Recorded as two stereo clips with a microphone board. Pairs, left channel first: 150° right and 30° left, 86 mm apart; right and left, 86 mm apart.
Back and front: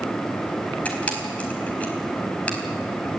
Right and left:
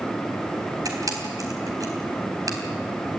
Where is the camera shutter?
135° left, 4 m.